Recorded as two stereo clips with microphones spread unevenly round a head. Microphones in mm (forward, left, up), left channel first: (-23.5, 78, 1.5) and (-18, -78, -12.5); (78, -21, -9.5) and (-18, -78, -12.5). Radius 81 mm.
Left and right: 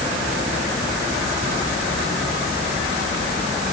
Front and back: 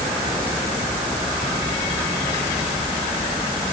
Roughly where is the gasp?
No gasp in this recording.